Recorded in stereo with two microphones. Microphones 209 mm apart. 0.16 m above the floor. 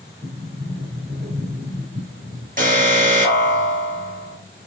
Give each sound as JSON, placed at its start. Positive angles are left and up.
{"t": 0.2, "sound": "a sliding door", "side_deg": -55, "distance_m": 2.5}
{"t": 2.6, "sound": "an alarm", "side_deg": -40, "distance_m": 3.0}